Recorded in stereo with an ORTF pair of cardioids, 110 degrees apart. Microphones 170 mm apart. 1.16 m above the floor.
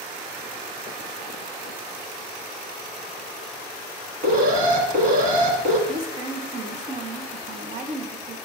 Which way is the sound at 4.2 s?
65° right.